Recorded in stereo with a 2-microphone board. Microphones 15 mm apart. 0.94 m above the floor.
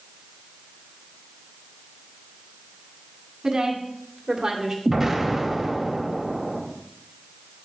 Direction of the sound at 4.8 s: 15° right (ahead or behind).